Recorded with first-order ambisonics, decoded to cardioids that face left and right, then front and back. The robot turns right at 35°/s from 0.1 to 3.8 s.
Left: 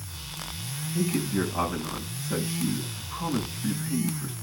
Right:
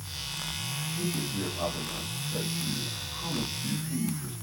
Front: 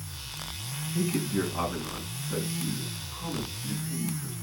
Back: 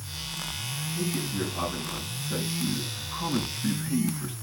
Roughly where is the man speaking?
Ahead left.